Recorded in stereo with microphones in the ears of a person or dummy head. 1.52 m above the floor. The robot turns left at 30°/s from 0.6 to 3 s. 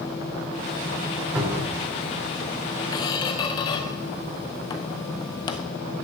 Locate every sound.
1.4 s a cupboard door: 10° right (ahead or behind), 3.5 m; by 1.8 s 25° right (ahead or behind), 3.5 m
2.9 s a squeak: 20° left (ahead or behind), 0.7 m